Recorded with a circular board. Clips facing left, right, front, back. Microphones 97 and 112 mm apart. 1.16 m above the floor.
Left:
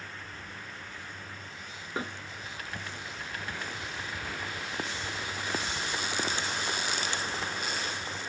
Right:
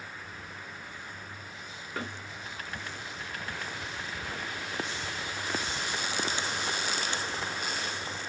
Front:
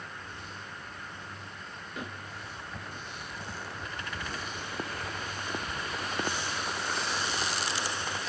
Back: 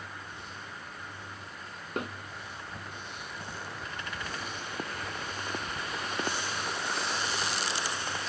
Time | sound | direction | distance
2.0 | a snare drum | 155° left | 1.6 m